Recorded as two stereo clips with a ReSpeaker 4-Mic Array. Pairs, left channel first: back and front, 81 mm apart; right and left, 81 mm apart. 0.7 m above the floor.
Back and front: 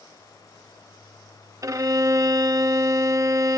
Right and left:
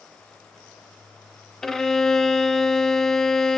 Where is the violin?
10° right, 0.6 m.